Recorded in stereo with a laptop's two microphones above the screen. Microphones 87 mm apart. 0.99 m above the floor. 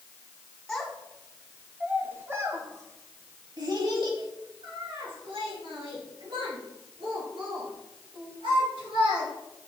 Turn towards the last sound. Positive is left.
turn(degrees=-85)